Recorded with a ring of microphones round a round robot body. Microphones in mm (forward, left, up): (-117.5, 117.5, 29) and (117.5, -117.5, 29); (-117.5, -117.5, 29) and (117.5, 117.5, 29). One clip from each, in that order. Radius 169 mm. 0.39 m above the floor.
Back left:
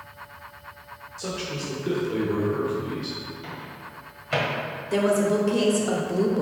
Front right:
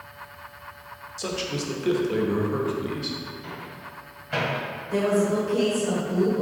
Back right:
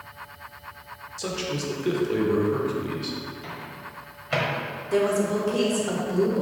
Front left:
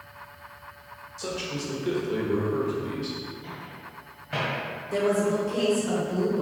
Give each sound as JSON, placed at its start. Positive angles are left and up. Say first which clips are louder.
{"t": 1.2, "sound": "a man speaking", "louder": "front right 2 dB, back right 2 dB", "azimuth_deg": -80, "distance_m": 1.0}
{"t": 3.4, "sound": "a microwave", "louder": "even, back right 3 dB", "azimuth_deg": -170, "distance_m": 1.5}
{"t": 4.9, "sound": "a woman speaking", "louder": "back left 1 dB, back right 1 dB", "azimuth_deg": 160, "distance_m": 1.1}